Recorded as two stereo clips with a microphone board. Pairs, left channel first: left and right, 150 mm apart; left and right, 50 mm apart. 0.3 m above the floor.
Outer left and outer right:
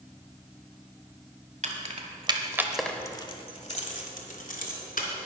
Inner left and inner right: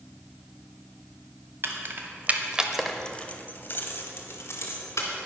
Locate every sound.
1.6 s keys jangling: 55° right (ahead or behind), 1.5 m; by 5.1 s 70° left (ahead or behind), 2.5 m